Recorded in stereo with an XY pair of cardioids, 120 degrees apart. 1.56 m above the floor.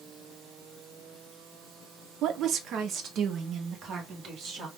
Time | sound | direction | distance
2.2 | a woman speaking | 70° right | 0.8 m